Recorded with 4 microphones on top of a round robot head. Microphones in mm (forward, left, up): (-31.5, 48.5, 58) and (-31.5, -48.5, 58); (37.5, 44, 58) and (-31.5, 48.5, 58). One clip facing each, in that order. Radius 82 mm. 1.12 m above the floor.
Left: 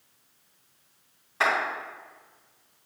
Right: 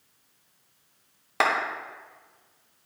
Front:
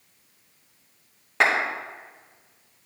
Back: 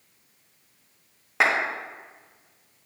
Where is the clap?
100° right, 1.3 m.